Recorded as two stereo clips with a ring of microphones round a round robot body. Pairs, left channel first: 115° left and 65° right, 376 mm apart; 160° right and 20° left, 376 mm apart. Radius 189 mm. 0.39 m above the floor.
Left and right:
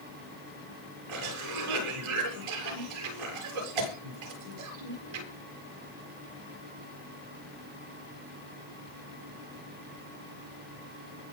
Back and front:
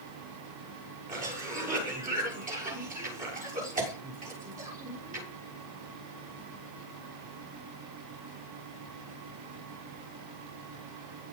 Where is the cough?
50° right, 7.5 m.